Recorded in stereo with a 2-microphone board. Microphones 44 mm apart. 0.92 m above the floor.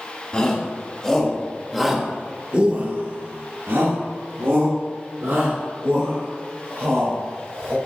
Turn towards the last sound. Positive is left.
turn(degrees=-60)  # may be behind; listen again after turning